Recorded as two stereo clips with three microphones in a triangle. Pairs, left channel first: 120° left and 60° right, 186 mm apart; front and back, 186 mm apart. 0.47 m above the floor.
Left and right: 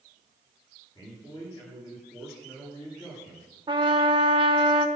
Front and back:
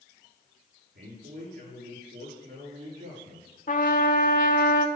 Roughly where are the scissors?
No scissors in this recording.